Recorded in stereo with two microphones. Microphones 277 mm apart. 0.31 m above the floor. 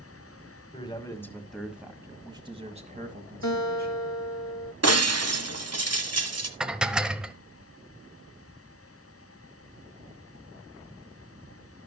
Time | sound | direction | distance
0.7 | a man speaking | 20° left (ahead or behind) | 1.7 m
3.4 | a guitar | 85° left | 1.0 m
4.8 | breaking glass | 65° right (ahead or behind) | 1.2 m
6.6 | dishes clattering | 5° right (ahead or behind) | 0.8 m